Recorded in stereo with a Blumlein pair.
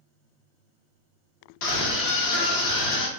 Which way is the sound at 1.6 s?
45° left.